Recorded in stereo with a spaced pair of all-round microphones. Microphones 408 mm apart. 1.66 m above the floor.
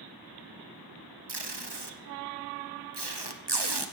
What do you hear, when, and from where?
1.3 s tape being pulled: 75° right (ahead or behind), 1.1 m